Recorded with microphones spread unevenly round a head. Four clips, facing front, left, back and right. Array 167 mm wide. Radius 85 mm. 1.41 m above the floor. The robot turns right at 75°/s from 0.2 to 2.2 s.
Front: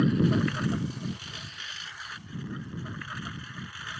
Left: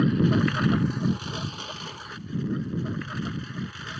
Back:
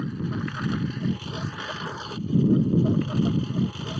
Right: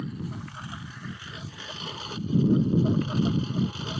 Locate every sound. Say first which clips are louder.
0.0 s a lawn mower: left 14 dB, front 6 dB; 55° left; by 4.0 s 155° right